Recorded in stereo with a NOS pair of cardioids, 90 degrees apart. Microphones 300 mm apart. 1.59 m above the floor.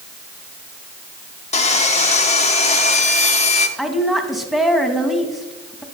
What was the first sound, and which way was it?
Sawing, 20° left.